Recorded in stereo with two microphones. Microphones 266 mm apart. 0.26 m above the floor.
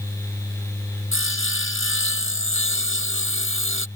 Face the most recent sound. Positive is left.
turn(degrees=50)  # may be behind; listen again after turning